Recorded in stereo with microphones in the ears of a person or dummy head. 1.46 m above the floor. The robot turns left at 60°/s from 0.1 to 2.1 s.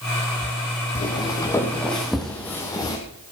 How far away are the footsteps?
About 3 m.